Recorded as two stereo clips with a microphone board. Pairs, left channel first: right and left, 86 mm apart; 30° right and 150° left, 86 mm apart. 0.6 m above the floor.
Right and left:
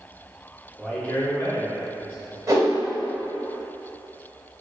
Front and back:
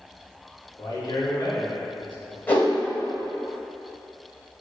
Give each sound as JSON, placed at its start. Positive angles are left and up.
{"t": 0.8, "sound": "a man speaking", "azimuth_deg": -5, "distance_m": 1.1}
{"t": 2.5, "sound": "a whoosh", "azimuth_deg": 40, "distance_m": 1.2}